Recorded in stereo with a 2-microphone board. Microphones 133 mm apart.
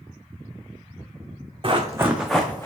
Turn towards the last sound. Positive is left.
turn(degrees=20)  # may be behind; listen again after turning